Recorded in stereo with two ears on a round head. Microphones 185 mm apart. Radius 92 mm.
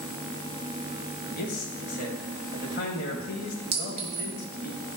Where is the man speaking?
45° left (ahead or behind), 2.5 m.